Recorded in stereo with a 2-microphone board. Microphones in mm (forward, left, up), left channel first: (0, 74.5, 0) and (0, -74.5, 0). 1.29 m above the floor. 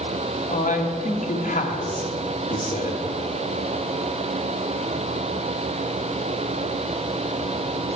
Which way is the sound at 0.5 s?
65° left (ahead or behind).